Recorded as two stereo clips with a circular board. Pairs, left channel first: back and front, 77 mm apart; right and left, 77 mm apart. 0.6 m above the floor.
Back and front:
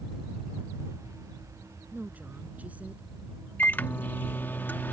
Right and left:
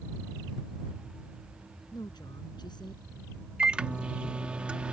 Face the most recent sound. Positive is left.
turn(degrees=150)